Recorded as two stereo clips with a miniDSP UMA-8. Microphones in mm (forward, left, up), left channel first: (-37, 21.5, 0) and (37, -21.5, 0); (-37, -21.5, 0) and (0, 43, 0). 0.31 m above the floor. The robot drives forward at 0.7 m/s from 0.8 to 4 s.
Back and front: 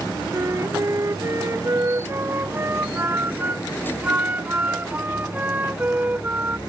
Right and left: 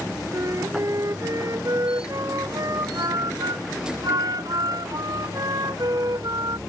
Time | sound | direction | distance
0.3 | a flute | 20° left | ?